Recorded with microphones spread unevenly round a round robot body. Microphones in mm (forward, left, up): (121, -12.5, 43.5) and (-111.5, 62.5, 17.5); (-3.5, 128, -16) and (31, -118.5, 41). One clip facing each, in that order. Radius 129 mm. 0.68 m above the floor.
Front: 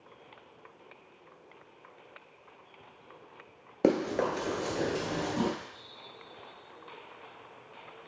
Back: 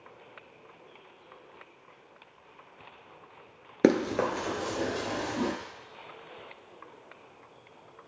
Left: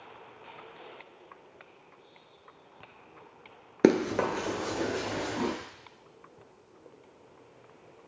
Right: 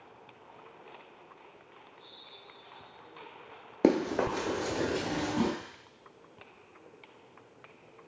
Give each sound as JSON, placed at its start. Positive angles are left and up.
{"t": 3.8, "sound": "running footsteps", "azimuth_deg": 145, "distance_m": 0.6}